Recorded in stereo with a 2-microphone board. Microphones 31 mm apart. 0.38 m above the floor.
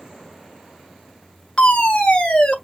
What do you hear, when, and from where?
1.6 s a fire alarm: 35° left (ahead or behind), 3 m